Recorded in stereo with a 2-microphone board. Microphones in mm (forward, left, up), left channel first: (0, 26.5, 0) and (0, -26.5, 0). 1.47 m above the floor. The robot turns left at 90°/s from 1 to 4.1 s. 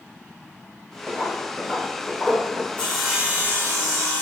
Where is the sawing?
25° left, 0.8 m; by 4.2 s 95° right, 0.8 m.